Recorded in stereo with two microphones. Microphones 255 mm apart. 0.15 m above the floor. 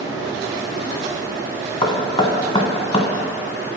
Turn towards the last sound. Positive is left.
turn(degrees=20)  # may be behind; listen again after turning